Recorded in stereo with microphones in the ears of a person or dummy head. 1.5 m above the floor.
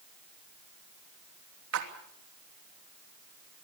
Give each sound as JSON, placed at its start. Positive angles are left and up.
{"t": 1.7, "sound": "a splash", "side_deg": -70, "distance_m": 3.0}